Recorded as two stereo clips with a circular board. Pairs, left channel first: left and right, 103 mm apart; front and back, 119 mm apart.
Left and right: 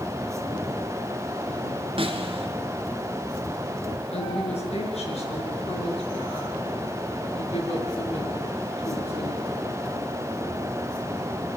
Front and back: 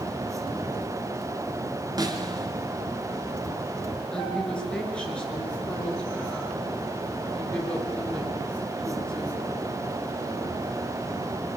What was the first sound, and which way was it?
A snare drum, 125° right.